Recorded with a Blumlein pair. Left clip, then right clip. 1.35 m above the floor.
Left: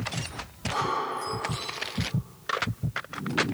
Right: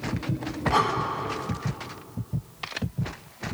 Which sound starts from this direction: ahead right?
Breathing, at 0.7 s.